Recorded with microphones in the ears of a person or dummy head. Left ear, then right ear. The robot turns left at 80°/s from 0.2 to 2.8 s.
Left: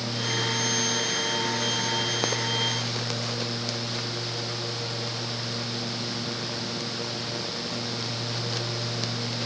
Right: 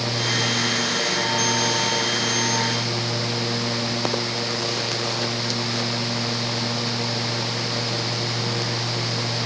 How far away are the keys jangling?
No keys jangling in this recording.